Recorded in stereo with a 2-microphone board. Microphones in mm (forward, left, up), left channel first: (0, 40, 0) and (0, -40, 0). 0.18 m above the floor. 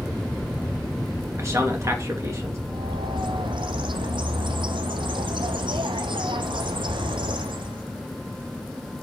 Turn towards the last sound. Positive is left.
turn(degrees=-90)